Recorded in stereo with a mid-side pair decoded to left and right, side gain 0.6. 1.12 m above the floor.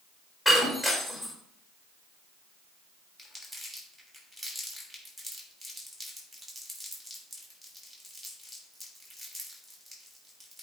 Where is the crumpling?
5° left, 3 m.